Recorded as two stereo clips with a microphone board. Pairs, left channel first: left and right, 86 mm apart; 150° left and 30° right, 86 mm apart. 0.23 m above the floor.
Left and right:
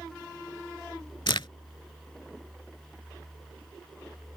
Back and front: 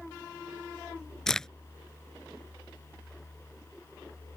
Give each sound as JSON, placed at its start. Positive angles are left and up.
{"t": 1.3, "sound": "a crack", "azimuth_deg": 65}